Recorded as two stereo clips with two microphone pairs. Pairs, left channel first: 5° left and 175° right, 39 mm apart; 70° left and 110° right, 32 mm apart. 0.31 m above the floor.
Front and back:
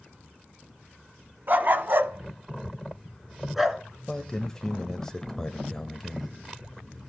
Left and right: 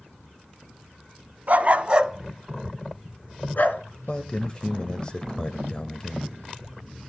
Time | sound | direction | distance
1.5 | a dog barking | 140° right | 1.2 m
4.1 | a man speaking | 60° left | 1.0 m